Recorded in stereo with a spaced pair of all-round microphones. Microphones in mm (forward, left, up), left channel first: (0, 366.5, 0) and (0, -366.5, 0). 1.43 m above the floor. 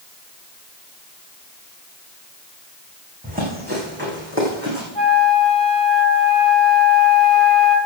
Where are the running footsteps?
10° right (ahead or behind), 6 m; by 4.8 s 20° right (ahead or behind), 5 m.